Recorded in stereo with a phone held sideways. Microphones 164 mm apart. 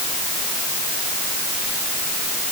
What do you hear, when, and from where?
Only background noise.